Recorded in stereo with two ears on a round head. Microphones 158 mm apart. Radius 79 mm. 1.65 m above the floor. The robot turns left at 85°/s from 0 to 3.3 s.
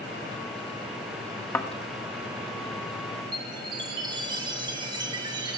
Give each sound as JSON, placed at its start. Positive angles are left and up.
{"t": 1.5, "sound": "a thud", "side_deg": 10, "distance_m": 1.2}
{"t": 3.3, "sound": "a chime", "side_deg": -25, "distance_m": 1.6}